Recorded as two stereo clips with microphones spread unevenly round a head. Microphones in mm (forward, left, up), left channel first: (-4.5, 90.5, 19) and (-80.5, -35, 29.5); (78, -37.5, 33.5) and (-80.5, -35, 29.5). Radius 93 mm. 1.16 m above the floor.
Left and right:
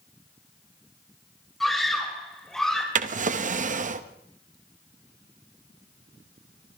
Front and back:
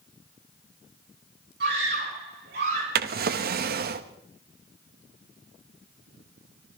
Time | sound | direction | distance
1.6 | a scream | 145° left | 6 m
3.0 | a drawer | 155° right | 0.9 m